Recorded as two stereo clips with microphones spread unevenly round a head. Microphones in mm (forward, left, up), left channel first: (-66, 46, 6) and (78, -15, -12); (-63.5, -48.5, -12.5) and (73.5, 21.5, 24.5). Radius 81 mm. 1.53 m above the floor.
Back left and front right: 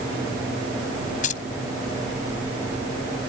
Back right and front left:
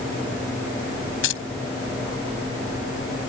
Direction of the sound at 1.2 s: 155° right.